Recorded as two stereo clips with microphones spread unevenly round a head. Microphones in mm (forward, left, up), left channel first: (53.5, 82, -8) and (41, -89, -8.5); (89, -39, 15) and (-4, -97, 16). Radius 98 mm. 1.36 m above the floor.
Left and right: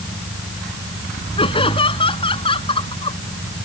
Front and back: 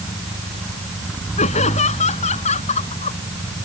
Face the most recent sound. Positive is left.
turn(degrees=25)